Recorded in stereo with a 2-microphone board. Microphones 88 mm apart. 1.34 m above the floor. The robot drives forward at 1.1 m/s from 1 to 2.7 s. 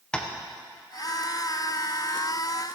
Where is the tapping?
10° left (ahead or behind), 0.8 m.